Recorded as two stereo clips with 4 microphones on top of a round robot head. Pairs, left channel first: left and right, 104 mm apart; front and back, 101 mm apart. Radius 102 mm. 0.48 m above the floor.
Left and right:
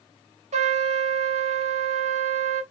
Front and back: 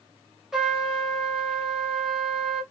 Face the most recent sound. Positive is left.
turn(degrees=-90)